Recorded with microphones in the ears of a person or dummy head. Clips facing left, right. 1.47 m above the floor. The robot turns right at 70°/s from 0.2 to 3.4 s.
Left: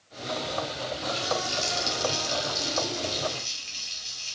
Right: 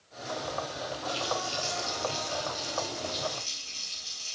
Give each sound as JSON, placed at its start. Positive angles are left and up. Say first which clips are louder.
{"t": 1.1, "sound": "a running tap", "louder": "left 3 dB", "azimuth_deg": -10, "distance_m": 2.5}